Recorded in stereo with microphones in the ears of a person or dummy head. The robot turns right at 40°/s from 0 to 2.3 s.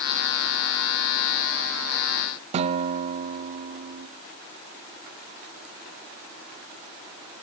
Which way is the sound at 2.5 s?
35° right (ahead or behind).